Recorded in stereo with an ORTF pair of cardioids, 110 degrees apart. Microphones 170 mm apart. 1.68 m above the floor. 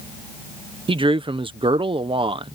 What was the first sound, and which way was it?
A man speaking, 30° right.